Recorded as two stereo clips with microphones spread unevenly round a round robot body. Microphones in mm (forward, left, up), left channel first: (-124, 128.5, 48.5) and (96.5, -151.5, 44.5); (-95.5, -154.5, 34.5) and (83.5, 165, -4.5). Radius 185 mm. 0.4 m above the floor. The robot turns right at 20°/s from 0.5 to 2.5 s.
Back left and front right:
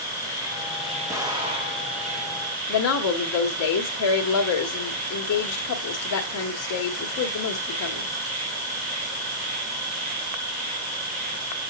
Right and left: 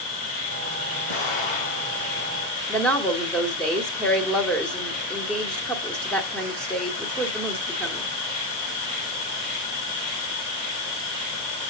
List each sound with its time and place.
0.0 s an insect: 130° right, 5 m; by 11.7 s 90° right, 5 m
1.1 s an explosion: 135° right, 3 m; by 2.1 s 115° right, 3 m
2.7 s a woman speaking: 150° left, 1.8 m